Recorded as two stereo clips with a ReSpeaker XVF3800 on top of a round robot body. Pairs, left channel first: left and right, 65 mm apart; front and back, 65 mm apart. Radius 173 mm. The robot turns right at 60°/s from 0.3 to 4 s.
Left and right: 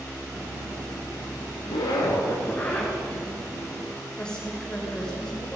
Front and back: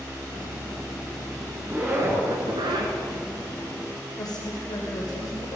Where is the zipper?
105° left, 1.5 m; by 3.0 s straight behind, 1.5 m.